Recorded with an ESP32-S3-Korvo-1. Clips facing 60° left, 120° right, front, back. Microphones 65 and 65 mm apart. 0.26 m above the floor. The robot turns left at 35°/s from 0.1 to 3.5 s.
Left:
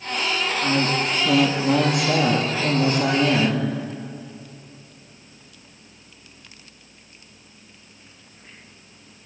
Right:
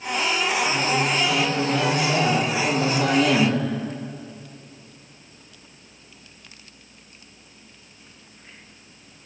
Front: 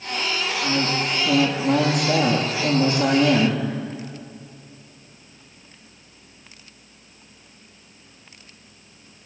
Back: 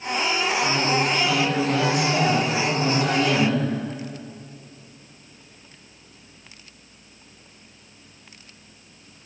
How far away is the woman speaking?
About 9 m.